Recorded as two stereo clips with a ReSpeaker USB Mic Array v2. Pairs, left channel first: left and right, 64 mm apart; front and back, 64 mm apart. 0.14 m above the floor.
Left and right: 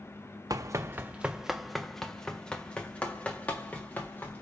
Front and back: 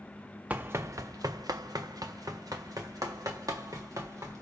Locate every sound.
0.5 s running footsteps: 115° right, 0.6 m; by 4.4 s 155° left, 3 m